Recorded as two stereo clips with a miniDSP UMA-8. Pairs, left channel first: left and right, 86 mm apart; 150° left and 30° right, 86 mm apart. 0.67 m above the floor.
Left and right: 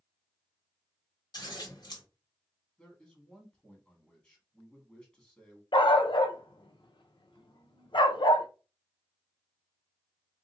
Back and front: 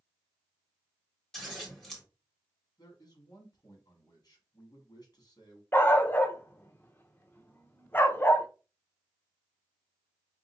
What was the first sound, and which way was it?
Scissors, 65° left.